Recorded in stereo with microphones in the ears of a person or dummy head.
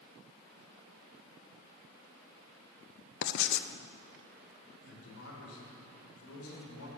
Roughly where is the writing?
Left.